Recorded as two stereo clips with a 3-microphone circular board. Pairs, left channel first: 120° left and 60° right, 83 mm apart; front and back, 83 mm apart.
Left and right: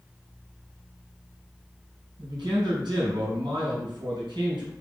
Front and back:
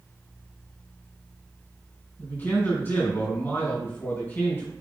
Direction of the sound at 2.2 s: 60° right.